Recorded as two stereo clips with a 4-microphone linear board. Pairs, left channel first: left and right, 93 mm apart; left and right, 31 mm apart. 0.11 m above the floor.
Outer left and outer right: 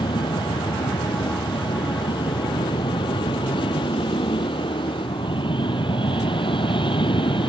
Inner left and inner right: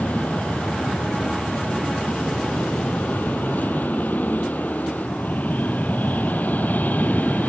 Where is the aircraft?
60° left (ahead or behind); by 7.5 s 65° left (ahead or behind).